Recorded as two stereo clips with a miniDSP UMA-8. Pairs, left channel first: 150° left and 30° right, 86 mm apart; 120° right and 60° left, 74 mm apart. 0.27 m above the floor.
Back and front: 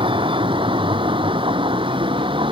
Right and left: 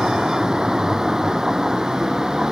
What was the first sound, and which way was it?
A vehicle, 20° right.